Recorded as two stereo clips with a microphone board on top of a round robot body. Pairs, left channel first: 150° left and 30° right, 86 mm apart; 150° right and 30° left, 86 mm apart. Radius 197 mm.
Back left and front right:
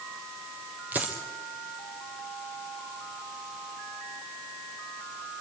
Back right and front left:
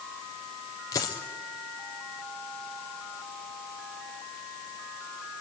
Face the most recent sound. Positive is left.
turn(degrees=-100)